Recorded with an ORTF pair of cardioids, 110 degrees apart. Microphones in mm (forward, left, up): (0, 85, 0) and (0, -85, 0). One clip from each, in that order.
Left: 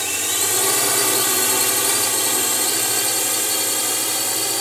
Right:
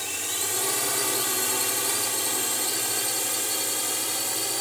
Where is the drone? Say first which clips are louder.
Left 8 dB; 50° left; by 4.6 s 40° left.